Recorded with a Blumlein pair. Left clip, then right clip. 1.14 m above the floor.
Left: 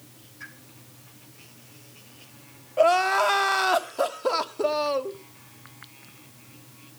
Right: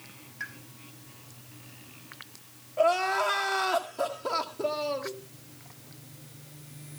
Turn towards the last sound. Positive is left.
turn(degrees=70)